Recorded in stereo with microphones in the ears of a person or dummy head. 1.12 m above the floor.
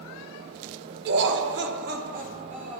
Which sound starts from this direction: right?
Laughter, at 1.1 s.